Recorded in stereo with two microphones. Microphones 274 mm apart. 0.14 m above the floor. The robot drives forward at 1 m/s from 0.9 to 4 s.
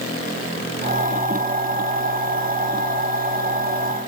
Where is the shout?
I don't hear a shout.